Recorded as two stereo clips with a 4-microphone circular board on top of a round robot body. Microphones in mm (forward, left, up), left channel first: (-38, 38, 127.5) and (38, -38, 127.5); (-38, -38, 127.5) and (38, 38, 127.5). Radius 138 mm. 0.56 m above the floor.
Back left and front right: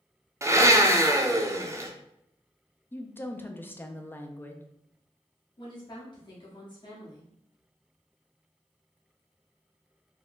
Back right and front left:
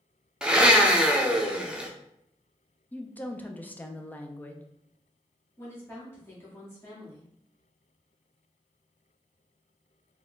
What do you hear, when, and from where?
0.4 s a blender: 30° right, 0.8 m
2.9 s a woman speaking: 175° left, 0.6 m
5.6 s a woman speaking: 165° left, 1.2 m